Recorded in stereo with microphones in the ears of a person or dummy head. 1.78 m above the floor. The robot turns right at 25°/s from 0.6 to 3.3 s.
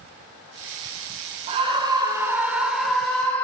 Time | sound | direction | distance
1.5 | a scream | 35° right | 4.5 m